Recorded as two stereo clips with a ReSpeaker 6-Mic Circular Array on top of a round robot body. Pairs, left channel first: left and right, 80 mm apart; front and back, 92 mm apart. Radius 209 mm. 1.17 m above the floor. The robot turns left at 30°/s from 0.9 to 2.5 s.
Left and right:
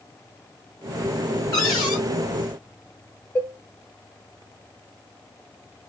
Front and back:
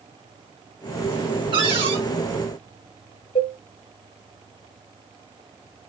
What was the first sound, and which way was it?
A cupboard door, 145° left.